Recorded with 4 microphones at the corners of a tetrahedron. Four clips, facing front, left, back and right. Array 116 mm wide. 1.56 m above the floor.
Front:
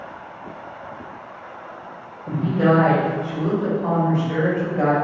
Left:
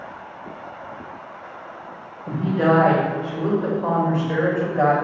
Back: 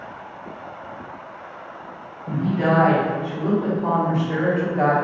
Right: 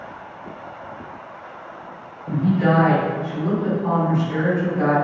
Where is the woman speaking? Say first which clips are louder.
Even, front 2 dB; 75° left, 1.5 m; by 4.9 s 100° left, 3 m.